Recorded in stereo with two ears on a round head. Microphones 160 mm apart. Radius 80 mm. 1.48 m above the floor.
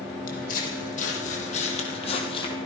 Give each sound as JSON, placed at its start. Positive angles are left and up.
{"t": 0.3, "sound": "footsteps", "side_deg": 50, "distance_m": 4.5}